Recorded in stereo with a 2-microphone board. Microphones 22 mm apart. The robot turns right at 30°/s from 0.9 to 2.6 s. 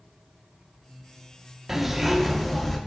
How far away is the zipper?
About 1.4 m.